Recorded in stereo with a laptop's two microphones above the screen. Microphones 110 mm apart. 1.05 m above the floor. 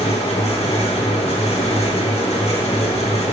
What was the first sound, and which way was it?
A fan, 75° left (ahead or behind).